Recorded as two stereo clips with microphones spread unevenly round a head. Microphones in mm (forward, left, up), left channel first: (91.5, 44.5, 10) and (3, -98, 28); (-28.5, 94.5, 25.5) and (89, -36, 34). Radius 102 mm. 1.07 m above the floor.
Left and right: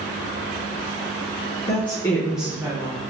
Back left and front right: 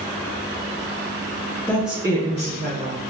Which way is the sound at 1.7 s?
55° left.